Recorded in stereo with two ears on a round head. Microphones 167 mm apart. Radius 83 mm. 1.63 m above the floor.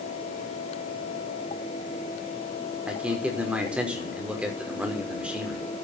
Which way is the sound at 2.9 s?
5° right (ahead or behind).